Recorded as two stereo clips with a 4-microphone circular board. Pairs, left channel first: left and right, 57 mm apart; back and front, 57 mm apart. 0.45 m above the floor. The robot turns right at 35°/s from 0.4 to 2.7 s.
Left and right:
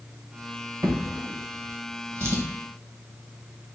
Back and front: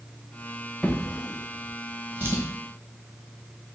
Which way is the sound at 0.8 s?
95° right.